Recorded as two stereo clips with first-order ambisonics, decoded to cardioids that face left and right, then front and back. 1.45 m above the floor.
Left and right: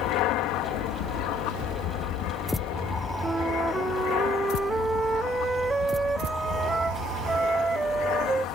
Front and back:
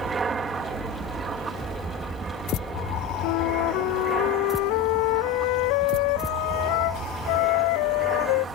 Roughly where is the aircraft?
Left.